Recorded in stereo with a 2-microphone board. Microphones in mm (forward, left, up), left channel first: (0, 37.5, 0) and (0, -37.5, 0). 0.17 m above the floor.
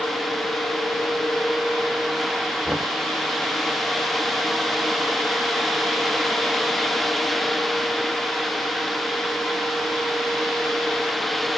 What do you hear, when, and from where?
2.6 s knocking: 15° right (ahead or behind)